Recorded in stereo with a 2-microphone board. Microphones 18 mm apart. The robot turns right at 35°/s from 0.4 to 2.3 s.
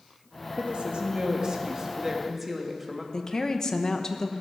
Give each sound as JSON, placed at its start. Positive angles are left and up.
{"t": 0.6, "sound": "a woman speaking", "azimuth_deg": -70, "distance_m": 1.6}
{"t": 3.1, "sound": "a woman speaking", "side_deg": 35, "distance_m": 0.9}